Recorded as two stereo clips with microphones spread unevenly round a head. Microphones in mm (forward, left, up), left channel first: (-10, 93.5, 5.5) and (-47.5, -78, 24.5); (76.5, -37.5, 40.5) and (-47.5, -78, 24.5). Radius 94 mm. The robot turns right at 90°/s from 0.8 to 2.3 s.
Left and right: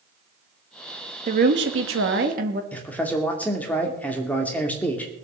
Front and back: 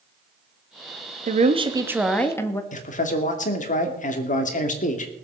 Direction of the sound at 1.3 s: 150° right.